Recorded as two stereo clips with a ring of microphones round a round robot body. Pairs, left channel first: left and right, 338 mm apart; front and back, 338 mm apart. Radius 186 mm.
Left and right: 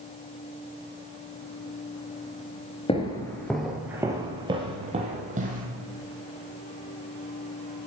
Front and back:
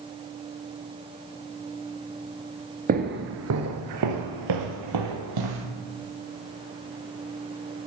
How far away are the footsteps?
About 1.0 m.